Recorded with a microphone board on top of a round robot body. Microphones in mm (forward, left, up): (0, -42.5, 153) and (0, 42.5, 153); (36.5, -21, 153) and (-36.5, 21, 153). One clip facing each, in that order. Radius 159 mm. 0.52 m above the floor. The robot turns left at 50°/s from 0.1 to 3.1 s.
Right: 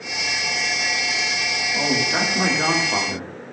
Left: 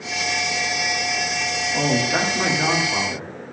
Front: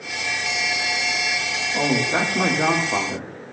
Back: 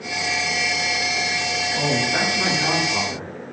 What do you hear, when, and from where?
1.7 s a man speaking: 25° left, 2 m; by 3.3 s 45° right, 2 m